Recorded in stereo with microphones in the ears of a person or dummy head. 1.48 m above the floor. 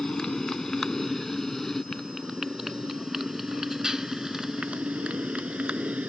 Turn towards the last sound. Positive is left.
turn(degrees=-5)  # may be behind; listen again after turning